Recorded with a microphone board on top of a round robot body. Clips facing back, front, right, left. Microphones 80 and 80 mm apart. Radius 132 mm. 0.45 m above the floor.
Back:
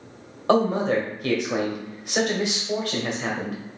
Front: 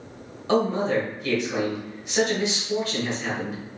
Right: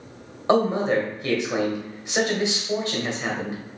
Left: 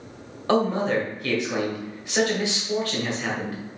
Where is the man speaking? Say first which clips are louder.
Back 2 dB, right 2 dB; 160° right, 1.6 m.